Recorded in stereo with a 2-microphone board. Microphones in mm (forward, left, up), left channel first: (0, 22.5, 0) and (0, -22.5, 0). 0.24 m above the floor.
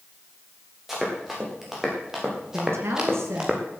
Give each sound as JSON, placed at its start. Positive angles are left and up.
{"t": 0.9, "sound": "running footsteps", "side_deg": -5, "distance_m": 7.5}
{"t": 2.5, "sound": "a woman speaking", "side_deg": -70, "distance_m": 4.0}